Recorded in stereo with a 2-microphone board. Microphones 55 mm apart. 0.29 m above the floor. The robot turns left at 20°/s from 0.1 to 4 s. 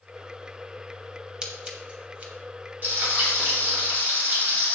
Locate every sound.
1.4 s scissors: 15° right (ahead or behind), 0.7 m; by 2.3 s 30° right (ahead or behind), 0.7 m
2.8 s frying: 40° right (ahead or behind), 1.9 m; by 4.8 s 35° right (ahead or behind), 1.9 m